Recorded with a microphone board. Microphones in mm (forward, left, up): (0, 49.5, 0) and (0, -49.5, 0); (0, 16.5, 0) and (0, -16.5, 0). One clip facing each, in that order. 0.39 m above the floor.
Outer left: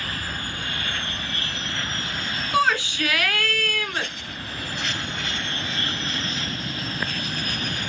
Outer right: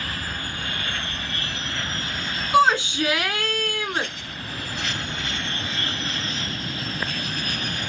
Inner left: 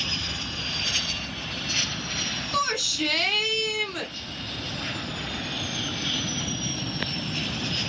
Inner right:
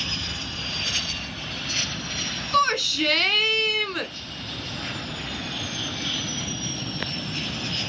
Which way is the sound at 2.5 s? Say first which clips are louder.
Outer right 4 dB, inner right 6 dB; 20° right (ahead or behind).